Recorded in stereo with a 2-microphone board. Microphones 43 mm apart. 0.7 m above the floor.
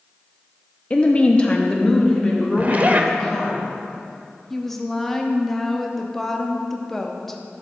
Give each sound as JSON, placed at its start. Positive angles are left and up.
{"t": 0.9, "sound": "a woman speaking", "side_deg": 25, "distance_m": 0.5}
{"t": 2.6, "sound": "a zipper", "side_deg": -35, "distance_m": 0.5}
{"t": 4.5, "sound": "a woman speaking", "side_deg": 5, "distance_m": 0.7}